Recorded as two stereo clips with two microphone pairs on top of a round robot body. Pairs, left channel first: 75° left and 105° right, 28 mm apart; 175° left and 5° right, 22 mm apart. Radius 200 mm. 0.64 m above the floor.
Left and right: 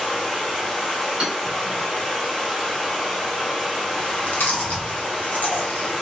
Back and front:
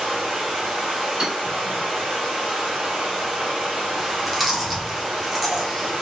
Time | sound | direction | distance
0.0 | running water | straight ahead | 0.9 m
1.2 | hammering | 50° right | 1.5 m
4.0 | chewing | 75° left | 0.8 m